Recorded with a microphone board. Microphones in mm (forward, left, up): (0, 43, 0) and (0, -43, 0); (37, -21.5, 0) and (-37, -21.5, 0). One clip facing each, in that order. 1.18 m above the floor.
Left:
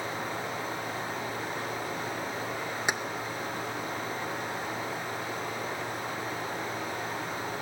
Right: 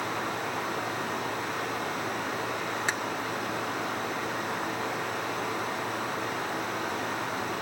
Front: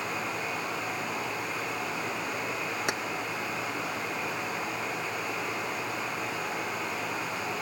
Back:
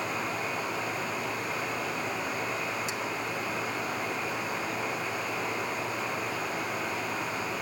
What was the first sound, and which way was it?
Running water, 90° right.